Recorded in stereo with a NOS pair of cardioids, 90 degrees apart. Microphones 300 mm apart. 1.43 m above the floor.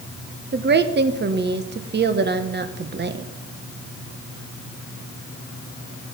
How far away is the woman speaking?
About 1.4 m.